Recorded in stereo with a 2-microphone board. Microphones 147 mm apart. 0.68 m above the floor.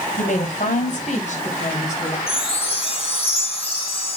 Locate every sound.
0.2 s a woman speaking: 60° left (ahead or behind), 3 m; by 2.2 s 55° left (ahead or behind), 4 m
2.3 s a chime: 40° left (ahead or behind), 2 m